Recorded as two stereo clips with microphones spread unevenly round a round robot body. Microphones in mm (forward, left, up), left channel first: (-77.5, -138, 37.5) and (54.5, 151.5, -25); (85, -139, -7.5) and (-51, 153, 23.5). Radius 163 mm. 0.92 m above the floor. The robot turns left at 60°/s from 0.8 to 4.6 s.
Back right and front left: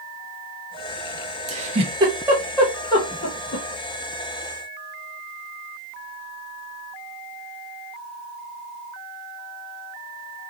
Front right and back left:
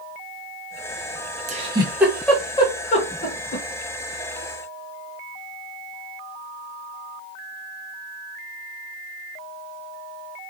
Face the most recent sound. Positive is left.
turn(degrees=-130)